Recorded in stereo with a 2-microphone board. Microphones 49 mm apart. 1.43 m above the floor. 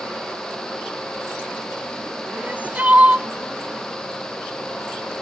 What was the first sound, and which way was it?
Crying, 30° right (ahead or behind).